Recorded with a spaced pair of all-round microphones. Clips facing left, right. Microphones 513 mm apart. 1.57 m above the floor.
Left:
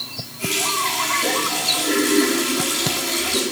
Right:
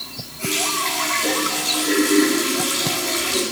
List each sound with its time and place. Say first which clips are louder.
0.4 s a running tap: right 1 dB; 50° left (ahead or behind), 10 m